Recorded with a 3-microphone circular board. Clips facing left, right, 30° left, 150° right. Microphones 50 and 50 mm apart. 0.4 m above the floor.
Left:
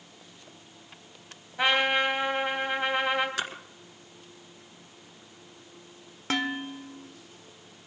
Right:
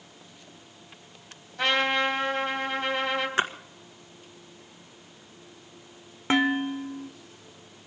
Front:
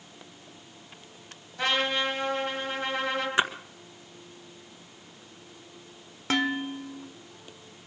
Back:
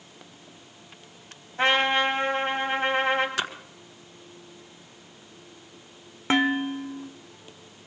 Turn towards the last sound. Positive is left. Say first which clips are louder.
# right 6 dB, back 4 dB
turn(degrees=-125)